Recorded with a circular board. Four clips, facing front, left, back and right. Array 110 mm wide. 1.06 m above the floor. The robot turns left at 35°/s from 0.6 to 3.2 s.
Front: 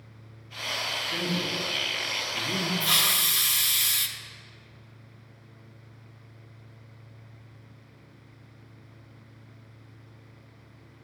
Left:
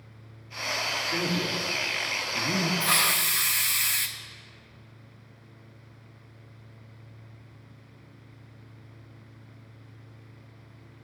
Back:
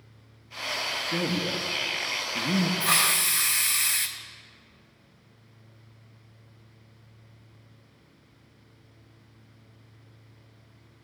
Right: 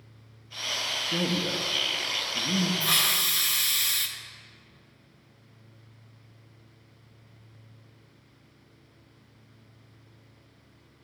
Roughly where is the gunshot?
I don't hear a gunshot.